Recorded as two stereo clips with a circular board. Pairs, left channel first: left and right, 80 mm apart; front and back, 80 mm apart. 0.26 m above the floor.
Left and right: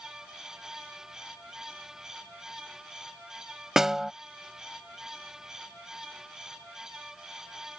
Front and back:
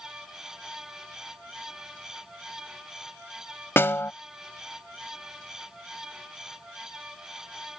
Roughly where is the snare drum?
Ahead.